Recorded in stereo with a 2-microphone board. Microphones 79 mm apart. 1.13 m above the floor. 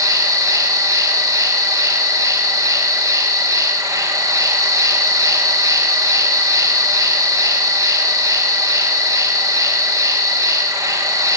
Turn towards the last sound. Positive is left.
turn(degrees=-45)  # may be behind; listen again after turning